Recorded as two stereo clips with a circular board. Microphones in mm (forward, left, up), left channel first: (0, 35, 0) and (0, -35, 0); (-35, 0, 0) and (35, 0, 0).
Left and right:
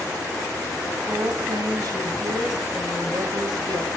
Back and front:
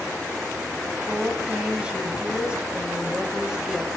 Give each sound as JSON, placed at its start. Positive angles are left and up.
{"t": 1.1, "sound": "a woman speaking", "azimuth_deg": -75, "distance_m": 4.5}